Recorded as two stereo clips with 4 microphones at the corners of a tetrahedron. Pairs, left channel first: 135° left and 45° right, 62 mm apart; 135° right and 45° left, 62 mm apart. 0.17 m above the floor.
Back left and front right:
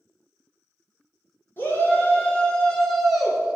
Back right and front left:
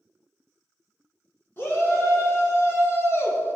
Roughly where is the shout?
Behind.